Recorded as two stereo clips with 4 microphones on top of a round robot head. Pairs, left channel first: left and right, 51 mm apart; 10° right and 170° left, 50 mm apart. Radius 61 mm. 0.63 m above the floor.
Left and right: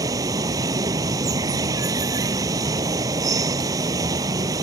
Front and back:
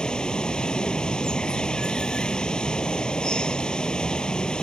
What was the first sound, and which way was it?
Running water, 85° right.